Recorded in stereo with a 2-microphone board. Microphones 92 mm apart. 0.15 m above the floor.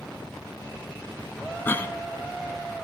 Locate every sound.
1.6 s a cough: 25° left (ahead or behind), 1.6 m